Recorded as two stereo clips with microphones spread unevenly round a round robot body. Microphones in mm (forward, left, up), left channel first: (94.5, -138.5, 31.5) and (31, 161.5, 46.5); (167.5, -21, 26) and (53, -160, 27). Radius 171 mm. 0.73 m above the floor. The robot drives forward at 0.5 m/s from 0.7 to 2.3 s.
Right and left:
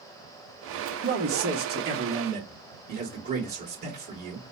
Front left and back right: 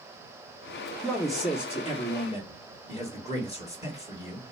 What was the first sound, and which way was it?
A man speaking, 130° left.